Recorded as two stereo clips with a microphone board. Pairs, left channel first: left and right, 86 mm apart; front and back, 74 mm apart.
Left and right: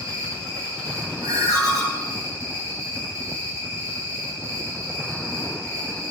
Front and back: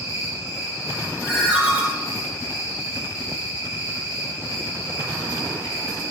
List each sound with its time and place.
0.0 s an insect: 135° right, 1.5 m
1.2 s a ringtone: 115° right, 0.9 m